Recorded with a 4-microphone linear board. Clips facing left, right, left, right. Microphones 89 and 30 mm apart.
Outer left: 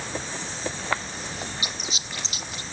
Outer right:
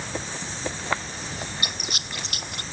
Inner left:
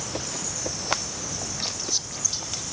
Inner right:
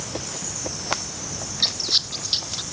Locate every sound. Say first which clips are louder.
1.6 s a squeak: outer right 1 dB, inner right 12 dB; 65° right (ahead or behind)